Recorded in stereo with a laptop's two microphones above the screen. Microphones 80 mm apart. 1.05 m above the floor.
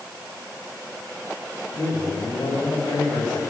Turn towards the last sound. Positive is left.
turn(degrees=65)  # may be behind; listen again after turning